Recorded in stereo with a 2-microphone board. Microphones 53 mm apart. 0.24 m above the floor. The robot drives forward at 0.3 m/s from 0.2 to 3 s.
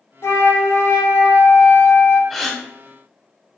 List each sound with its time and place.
0.2 s a flute: 75° left (ahead or behind), 0.7 m; by 2.2 s 60° left (ahead or behind), 0.8 m
2.3 s a gasp: centre (ahead or behind), 0.6 m